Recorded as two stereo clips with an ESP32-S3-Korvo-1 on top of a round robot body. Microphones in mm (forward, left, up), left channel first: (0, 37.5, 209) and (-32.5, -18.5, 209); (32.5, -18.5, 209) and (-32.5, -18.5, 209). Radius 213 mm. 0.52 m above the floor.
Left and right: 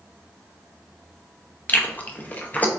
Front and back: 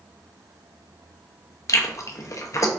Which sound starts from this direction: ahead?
Chewing, at 1.7 s.